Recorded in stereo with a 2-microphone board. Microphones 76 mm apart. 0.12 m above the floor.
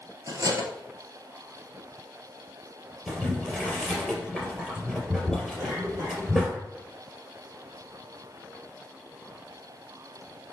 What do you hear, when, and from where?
0.3 s cutlery clinking: 50° right (ahead or behind), 1.4 m
3.1 s boiling: 5° right (ahead or behind), 3 m
5.6 s a cough: 30° right (ahead or behind), 4 m